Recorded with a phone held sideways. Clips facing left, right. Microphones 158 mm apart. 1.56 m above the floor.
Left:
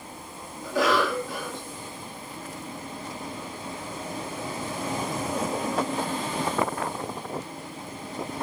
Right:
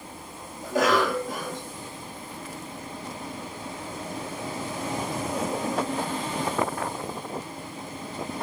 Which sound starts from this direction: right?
A cough, at 0.6 s.